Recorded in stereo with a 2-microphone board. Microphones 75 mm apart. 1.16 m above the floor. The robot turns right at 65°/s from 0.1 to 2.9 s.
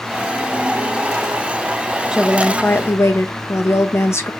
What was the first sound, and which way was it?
A woman speaking, 10° right.